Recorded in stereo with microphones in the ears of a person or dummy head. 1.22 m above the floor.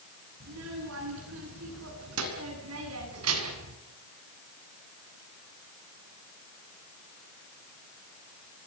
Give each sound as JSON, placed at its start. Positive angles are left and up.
{"t": 0.4, "sound": "a child speaking", "side_deg": -70, "distance_m": 9.0}